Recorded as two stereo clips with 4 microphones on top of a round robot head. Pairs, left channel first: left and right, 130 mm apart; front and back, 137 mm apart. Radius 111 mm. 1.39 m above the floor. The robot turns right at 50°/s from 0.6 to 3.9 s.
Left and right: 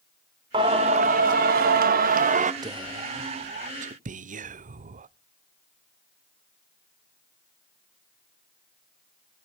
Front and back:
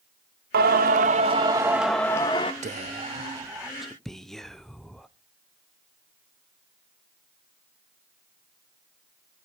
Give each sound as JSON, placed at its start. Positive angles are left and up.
{"t": 0.5, "sound": "singing", "azimuth_deg": -155, "distance_m": 0.8}
{"t": 2.6, "sound": "whispering", "azimuth_deg": -150, "distance_m": 0.6}